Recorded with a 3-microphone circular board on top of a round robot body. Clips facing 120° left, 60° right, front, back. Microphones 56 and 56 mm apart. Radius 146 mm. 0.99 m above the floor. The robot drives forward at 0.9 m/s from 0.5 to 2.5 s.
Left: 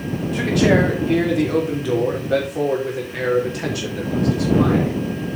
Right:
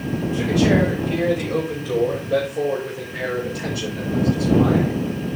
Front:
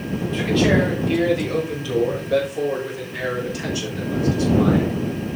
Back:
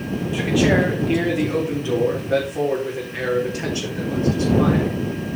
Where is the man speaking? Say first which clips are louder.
Left 2 dB, even; 95° left, 3 m; by 4.9 s 125° left, 3.5 m.